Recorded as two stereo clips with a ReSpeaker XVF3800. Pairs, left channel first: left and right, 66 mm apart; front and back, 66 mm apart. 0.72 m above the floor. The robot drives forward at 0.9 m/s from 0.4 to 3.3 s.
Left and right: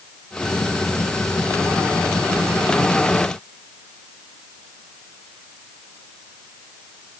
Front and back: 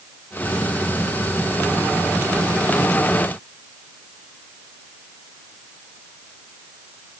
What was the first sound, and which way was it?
Only background noise.